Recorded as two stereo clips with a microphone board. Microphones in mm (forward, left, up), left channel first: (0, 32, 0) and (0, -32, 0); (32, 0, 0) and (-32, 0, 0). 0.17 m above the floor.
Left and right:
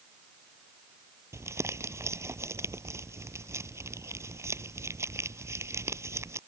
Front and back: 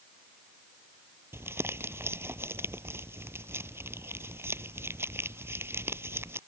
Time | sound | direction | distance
1.3 | crumpling | 130° right | ?